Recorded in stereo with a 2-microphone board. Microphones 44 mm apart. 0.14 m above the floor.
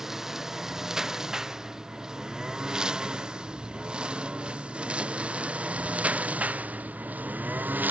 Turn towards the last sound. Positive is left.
turn(degrees=-45)  # may be behind; listen again after turning